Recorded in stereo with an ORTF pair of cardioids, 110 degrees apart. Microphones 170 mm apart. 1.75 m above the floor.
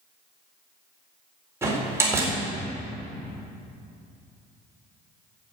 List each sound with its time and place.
1.6 s a door slam: 15° right, 4 m